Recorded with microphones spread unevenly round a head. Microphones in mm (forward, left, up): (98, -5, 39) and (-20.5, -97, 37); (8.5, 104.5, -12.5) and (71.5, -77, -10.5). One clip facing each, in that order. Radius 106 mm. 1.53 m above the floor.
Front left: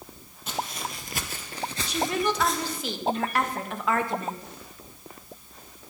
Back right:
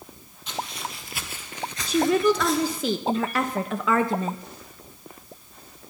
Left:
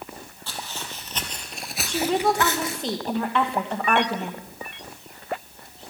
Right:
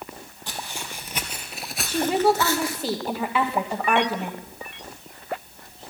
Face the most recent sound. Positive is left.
turn(degrees=-155)